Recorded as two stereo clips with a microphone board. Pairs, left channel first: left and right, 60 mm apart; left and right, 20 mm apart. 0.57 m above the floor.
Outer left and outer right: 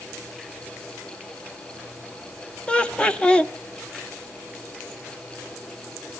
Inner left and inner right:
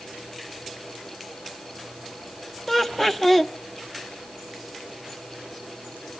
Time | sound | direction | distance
2.7 | laughter | 20° left (ahead or behind) | 0.6 m